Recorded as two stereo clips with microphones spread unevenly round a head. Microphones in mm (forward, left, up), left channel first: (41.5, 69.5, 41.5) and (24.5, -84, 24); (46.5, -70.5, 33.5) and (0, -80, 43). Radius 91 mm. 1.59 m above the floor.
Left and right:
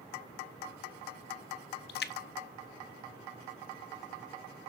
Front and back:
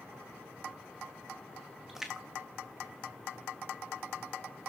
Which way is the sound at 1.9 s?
110° left.